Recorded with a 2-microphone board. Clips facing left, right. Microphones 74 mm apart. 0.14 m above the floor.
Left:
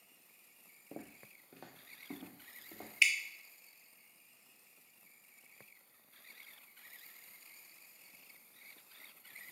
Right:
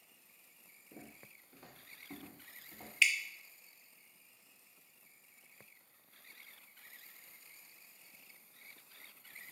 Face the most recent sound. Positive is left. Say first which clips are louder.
# even
turn(degrees=5)  # may be behind; listen again after turning